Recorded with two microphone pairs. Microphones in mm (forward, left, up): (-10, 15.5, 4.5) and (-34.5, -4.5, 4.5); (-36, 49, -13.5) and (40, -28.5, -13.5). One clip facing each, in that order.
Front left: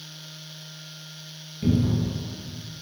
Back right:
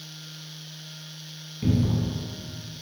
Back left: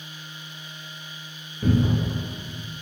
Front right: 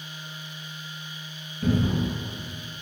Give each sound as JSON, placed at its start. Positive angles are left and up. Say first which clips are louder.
{"t": 1.6, "sound": "a cupboard door", "louder": "front left 1 dB, back left 2 dB", "azimuth_deg": -175, "distance_m": 0.8}